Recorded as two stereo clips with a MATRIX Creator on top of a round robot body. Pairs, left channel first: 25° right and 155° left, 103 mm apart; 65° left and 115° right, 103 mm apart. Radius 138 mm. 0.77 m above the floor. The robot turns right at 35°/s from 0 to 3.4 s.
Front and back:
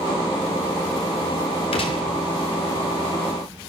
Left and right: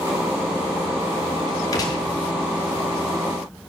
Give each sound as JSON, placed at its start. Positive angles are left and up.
{"t": 1.7, "sound": "a gunshot", "azimuth_deg": 10, "distance_m": 1.0}